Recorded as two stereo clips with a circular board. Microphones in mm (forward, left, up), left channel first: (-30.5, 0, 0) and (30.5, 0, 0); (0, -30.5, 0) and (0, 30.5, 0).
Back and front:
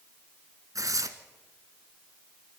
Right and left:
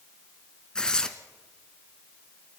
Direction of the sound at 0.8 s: 15° right.